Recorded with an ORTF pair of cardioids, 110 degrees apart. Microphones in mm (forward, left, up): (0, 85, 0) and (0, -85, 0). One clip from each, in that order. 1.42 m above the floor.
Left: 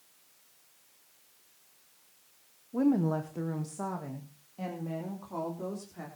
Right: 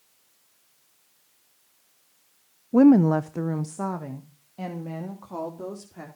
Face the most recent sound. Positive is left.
turn(degrees=-30)